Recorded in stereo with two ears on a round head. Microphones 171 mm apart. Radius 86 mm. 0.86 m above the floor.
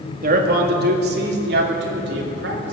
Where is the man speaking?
45° right (ahead or behind), 1.9 m; by 2.7 s 70° right (ahead or behind), 4 m.